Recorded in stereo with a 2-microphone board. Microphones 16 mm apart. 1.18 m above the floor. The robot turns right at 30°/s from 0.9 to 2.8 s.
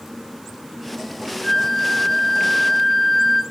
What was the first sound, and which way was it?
A flute, 135° left.